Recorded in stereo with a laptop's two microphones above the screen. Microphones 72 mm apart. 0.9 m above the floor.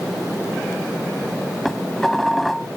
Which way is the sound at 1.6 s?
5° left (ahead or behind).